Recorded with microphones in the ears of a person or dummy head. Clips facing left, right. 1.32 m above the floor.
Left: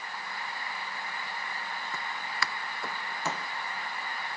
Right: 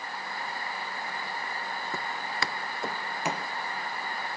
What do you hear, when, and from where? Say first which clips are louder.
1.9 s footsteps: right 2 dB; 35° right (ahead or behind); by 3.5 s 10° right (ahead or behind)